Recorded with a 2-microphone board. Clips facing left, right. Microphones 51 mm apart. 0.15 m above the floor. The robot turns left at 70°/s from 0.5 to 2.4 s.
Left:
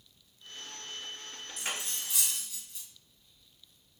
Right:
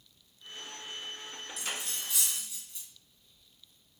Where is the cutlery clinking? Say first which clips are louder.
Left 1 dB; 45° left (ahead or behind), 1.3 m; by 2.9 s 5° right (ahead or behind), 1.3 m.